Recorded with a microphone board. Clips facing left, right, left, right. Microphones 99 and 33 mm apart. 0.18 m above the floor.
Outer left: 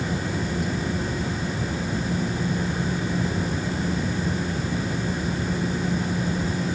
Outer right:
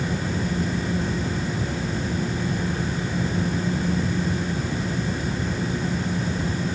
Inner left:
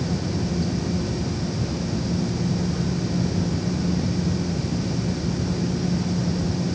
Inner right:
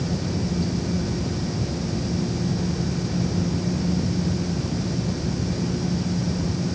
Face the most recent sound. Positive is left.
No sound to turn to.